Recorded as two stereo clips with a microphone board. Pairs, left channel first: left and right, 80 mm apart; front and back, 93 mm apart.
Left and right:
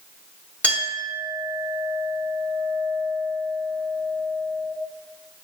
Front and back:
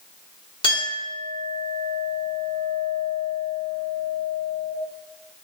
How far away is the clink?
About 1.9 m.